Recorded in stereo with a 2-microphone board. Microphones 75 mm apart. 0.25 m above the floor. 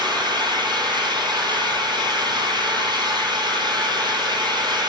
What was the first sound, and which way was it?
An engine running, 85° right.